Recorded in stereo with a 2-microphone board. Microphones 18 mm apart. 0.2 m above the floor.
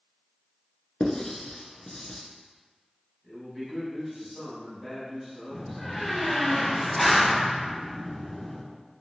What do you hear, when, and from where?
1.0 s writing: 45° left (ahead or behind), 0.5 m
3.2 s a man speaking: 10° right (ahead or behind), 1.3 m
5.5 s a door slam: 15° left (ahead or behind), 0.7 m